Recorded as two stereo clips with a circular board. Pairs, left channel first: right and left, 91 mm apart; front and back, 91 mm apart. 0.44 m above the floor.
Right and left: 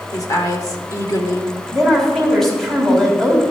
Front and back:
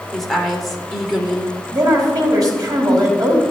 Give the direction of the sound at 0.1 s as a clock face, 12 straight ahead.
3 o'clock.